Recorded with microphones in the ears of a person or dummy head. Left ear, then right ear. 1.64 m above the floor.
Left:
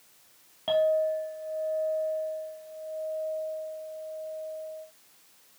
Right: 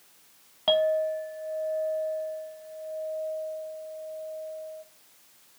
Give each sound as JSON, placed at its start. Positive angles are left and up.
{"t": 0.7, "sound": "a clink", "side_deg": -40, "distance_m": 1.5}